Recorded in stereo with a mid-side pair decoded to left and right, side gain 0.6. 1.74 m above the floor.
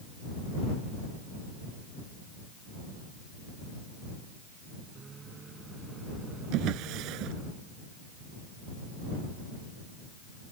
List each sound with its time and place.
5.0 s a microwave: 30° right
6.5 s a drawer: 70° right